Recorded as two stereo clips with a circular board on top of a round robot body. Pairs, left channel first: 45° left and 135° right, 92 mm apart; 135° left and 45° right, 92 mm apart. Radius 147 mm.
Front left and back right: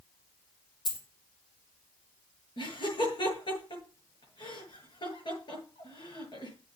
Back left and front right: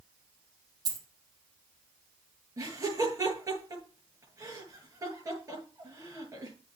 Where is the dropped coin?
5° left, 3.5 m.